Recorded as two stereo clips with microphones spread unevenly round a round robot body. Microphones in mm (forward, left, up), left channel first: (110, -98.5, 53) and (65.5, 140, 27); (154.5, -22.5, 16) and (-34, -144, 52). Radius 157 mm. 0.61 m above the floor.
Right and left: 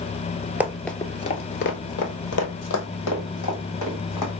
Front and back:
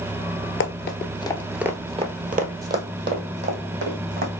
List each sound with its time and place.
0.6 s running footsteps: 15° left, 0.8 m; by 4.3 s 120° right, 2.5 m